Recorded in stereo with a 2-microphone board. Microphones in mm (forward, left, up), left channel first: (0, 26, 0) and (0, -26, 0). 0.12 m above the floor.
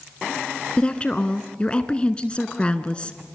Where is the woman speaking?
25° left (ahead or behind), 1.1 m.